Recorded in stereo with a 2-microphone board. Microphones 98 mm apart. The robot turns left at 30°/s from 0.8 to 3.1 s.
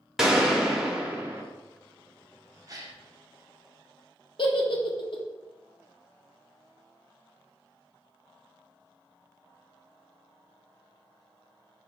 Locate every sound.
0.2 s a gunshot: 5° right (ahead or behind), 0.7 m; by 1.4 s 20° right (ahead or behind), 0.7 m
2.7 s a gasp: 40° right (ahead or behind), 0.6 m; by 3.0 s 30° right (ahead or behind), 0.6 m
4.4 s a giggle: 55° left (ahead or behind), 0.6 m